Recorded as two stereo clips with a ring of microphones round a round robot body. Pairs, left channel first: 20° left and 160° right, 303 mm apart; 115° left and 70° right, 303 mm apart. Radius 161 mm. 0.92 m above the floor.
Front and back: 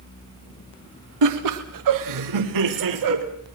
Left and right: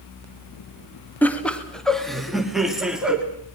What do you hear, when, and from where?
1.2 s laughter: 165° right, 1.8 m; by 3.2 s 155° right, 3 m